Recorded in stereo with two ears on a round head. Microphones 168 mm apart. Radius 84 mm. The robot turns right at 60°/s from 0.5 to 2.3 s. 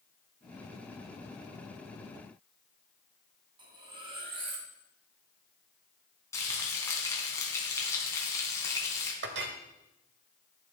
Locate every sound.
3.6 s cutlery clinking: 25° right (ahead or behind), 2.5 m
6.3 s frying: 15° left (ahead or behind), 3 m
9.2 s a clink: 65° right (ahead or behind), 1.3 m